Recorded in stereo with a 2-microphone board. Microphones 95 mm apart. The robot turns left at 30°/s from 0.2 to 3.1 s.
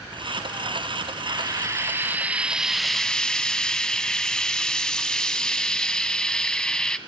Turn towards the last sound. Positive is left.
turn(degrees=175)